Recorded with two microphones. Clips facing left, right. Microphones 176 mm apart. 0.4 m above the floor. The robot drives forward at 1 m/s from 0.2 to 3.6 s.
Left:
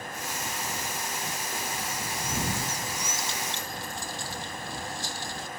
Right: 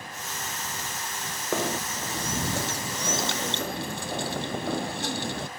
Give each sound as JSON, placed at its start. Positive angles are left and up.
{"t": 1.5, "sound": "knocking", "side_deg": -80}